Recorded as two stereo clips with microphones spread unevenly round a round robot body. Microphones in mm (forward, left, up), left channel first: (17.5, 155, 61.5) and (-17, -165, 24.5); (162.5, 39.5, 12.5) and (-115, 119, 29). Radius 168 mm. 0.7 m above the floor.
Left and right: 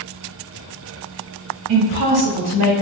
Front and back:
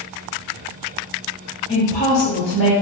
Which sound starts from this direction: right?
A woman speaking, at 1.7 s.